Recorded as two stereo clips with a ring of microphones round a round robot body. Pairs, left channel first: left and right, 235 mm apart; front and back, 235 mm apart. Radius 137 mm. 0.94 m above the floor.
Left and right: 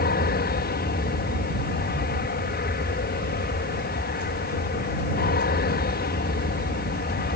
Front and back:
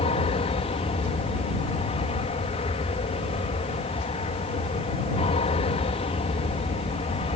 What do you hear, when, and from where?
0.0 s an aircraft: 60° left